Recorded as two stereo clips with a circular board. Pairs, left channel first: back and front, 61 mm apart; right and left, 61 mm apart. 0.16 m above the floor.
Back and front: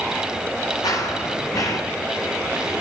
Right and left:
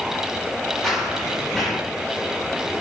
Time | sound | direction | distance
0.8 | running footsteps | 175° right | 8.5 m